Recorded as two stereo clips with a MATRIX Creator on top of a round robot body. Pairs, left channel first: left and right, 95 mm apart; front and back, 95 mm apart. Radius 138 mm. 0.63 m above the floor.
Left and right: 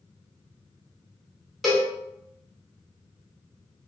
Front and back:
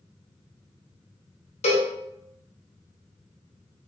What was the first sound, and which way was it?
A cowbell, straight ahead.